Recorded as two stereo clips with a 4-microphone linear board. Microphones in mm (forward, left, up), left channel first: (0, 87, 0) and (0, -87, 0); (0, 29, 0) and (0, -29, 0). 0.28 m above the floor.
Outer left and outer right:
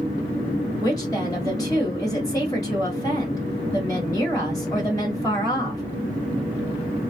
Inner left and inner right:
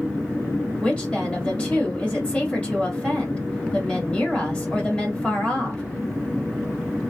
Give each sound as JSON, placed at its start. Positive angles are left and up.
{"t": 0.8, "sound": "a woman speaking", "side_deg": 20, "distance_m": 1.5}